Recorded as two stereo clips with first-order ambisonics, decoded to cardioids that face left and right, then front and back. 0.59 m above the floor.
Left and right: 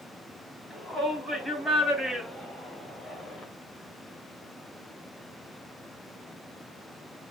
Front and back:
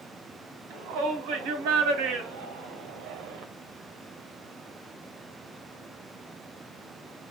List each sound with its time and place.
0.7 s a shout: straight behind, 4 m; by 3.5 s 165° left, 2 m